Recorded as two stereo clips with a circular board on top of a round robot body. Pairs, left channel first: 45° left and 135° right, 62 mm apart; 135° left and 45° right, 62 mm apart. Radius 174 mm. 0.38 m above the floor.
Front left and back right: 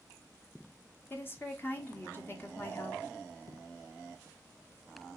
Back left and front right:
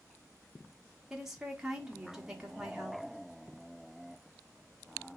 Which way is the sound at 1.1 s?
30° left.